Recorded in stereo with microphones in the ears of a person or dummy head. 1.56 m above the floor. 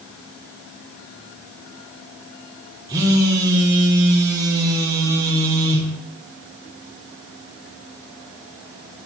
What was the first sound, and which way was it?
A phone buzzing, 20° right (ahead or behind).